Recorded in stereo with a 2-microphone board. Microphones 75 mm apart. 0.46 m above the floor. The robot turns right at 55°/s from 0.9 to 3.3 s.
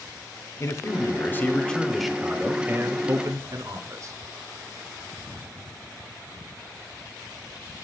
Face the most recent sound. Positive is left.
turn(degrees=-105)